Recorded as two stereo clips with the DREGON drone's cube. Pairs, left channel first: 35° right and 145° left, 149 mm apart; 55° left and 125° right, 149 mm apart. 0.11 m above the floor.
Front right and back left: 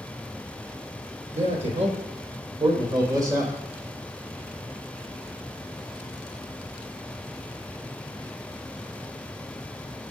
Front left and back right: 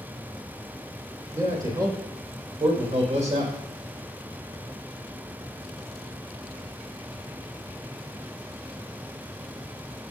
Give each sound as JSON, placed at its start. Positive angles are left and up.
{"t": 1.3, "sound": "a man speaking", "azimuth_deg": 165, "distance_m": 3.0}